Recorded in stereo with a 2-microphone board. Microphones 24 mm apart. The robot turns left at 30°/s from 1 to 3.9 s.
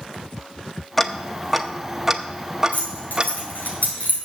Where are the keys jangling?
75° left (ahead or behind), 4 m; by 4.2 s 65° left (ahead or behind), 4 m.